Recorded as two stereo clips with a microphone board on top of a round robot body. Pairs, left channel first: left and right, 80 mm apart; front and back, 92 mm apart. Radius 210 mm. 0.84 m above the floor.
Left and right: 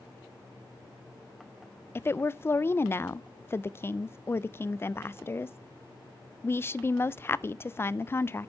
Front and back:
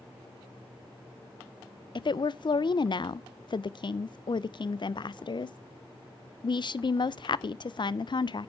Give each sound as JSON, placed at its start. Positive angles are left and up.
{"t": 1.9, "sound": "a woman speaking", "azimuth_deg": 30, "distance_m": 0.6}